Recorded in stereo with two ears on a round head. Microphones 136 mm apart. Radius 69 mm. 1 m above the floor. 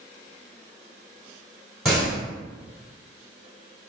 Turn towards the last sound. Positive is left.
turn(degrees=0)  # may be behind; listen again after turning